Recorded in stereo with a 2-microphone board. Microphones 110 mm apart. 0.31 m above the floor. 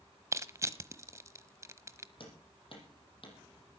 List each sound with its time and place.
0.3 s crushing: 25° right (ahead or behind), 1.0 m
2.2 s hammering: 50° left (ahead or behind), 7 m